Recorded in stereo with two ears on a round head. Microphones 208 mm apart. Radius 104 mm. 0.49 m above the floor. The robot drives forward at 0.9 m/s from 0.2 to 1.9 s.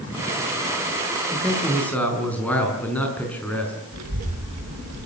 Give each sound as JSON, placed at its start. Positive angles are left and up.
{"t": 1.3, "sound": "a man speaking", "side_deg": 5, "distance_m": 6.0}
{"t": 3.9, "sound": "a child speaking", "side_deg": -80, "distance_m": 5.5}